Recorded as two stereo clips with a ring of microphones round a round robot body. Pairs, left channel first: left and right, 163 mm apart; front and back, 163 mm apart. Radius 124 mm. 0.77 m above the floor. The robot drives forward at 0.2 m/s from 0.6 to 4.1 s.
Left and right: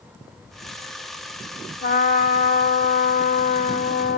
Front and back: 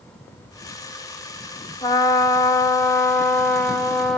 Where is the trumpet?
65° left, 1.5 m; by 4.2 s 85° left, 1.3 m.